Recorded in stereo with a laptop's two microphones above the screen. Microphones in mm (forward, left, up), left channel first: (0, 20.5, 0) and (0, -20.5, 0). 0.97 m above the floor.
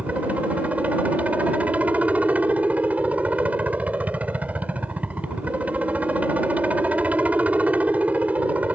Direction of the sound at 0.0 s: 35° right (ahead or behind).